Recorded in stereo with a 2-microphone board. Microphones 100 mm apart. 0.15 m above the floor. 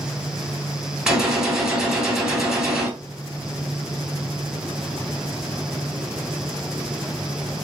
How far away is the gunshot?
About 1.5 m.